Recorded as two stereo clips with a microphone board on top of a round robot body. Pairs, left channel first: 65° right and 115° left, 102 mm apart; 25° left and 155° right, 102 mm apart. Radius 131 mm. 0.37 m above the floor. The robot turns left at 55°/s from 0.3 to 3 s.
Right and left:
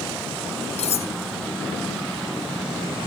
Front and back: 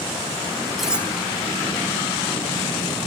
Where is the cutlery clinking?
70° right; by 1.1 s 85° right.